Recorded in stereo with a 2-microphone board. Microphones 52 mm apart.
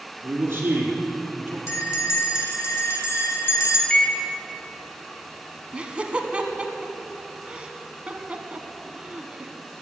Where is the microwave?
15° left (ahead or behind), 0.9 m.